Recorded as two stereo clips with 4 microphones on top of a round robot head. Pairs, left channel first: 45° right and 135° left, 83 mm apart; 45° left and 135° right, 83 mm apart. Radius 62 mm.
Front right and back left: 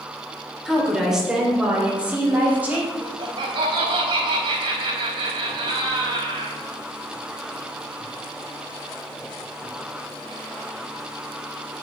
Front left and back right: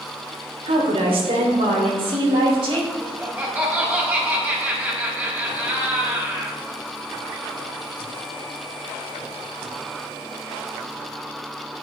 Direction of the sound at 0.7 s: 140° right.